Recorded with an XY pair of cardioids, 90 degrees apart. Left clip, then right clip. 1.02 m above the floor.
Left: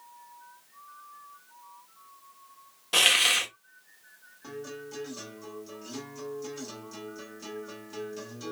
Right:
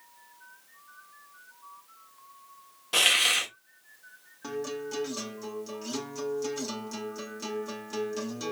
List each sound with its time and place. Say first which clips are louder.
2.9 s a hiss: left 1 dB; 20° left, 1.6 m
4.4 s a guitar: right 6 dB; 55° right, 2 m